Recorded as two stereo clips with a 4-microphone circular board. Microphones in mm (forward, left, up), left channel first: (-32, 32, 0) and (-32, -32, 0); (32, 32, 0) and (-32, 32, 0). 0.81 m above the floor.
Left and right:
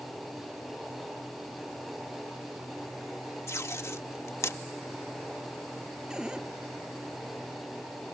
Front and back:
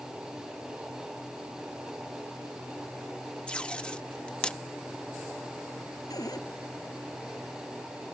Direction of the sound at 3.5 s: 70° left.